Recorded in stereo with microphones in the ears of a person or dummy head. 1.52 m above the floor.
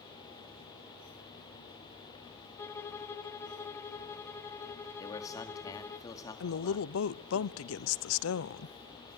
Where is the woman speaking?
75° left (ahead or behind), 0.7 m.